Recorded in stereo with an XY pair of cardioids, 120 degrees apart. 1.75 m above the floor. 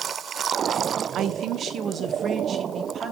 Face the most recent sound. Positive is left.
turn(degrees=-45)